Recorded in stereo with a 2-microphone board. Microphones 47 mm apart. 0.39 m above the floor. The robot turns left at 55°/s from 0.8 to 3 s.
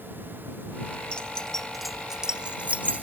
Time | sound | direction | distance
1.1 | keys jangling | 20° left (ahead or behind) | ?